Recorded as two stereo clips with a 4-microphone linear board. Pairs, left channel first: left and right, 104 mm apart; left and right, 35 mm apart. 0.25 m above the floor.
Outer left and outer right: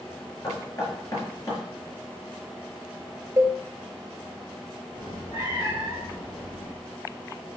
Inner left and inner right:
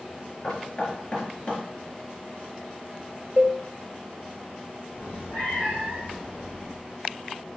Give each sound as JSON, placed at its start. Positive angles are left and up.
{"t": 0.4, "sound": "knocking", "side_deg": 35, "distance_m": 4.5}
{"t": 3.4, "sound": "a cowbell", "side_deg": -30, "distance_m": 1.1}
{"t": 5.0, "sound": "a cat meowing", "side_deg": 50, "distance_m": 6.5}